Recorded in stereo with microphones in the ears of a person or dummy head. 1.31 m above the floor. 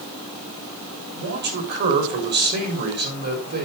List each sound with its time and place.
1.1 s a man speaking: 50° right (ahead or behind), 4 m